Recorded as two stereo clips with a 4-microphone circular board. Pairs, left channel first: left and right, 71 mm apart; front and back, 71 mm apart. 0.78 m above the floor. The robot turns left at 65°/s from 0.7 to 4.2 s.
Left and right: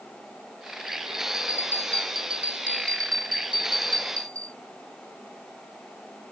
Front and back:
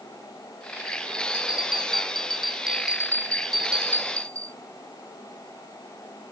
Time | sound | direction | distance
1.3 | a bell | 50° left | ?